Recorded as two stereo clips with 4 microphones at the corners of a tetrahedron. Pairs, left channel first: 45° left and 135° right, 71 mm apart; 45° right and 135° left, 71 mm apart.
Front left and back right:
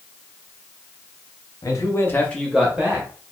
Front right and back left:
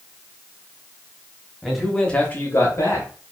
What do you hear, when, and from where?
1.6 s a man speaking: 50° left, 0.9 m; by 3.1 s 80° right, 1.0 m